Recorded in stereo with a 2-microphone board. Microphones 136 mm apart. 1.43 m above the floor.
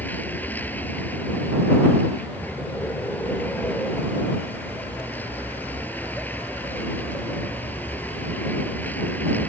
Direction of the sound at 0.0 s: 15° left (ahead or behind).